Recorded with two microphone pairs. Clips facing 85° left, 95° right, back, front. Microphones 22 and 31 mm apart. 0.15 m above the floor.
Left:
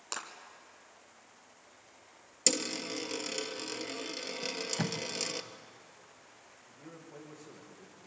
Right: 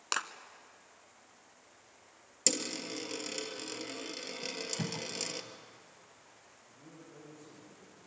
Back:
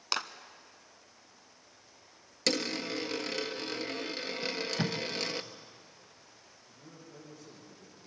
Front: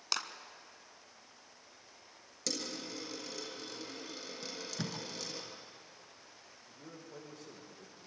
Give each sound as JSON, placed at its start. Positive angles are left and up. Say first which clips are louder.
{"t": 0.1, "sound": "a clap", "louder": "right 6 dB, back 3 dB", "azimuth_deg": -125, "distance_m": 1.1}
{"t": 2.5, "sound": "a dropped coin", "louder": "left 2 dB, back 9 dB", "azimuth_deg": 160, "distance_m": 1.3}
{"t": 4.4, "sound": "tape being pulled", "louder": "left 3 dB, back 8 dB", "azimuth_deg": 125, "distance_m": 1.2}
{"t": 6.7, "sound": "a man speaking", "louder": "left 4 dB, front 2 dB", "azimuth_deg": 35, "distance_m": 7.5}